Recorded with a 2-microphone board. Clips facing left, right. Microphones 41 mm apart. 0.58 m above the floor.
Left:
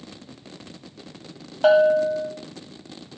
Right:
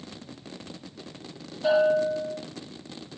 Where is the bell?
80° left, 1.4 m.